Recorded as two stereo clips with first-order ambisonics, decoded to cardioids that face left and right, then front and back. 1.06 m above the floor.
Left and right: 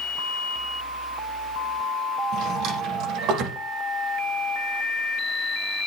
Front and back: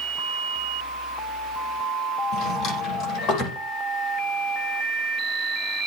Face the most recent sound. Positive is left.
turn(degrees=-45)